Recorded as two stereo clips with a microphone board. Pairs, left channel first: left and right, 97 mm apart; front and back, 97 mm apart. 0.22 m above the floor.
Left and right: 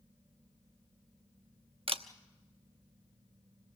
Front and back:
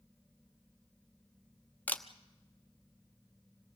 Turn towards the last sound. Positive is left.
turn(degrees=-75)